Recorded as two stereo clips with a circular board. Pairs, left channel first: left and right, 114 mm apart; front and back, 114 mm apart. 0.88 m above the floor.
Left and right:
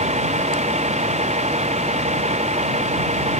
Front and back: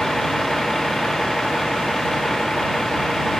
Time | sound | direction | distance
0.0 | a vehicle | 90° right | ?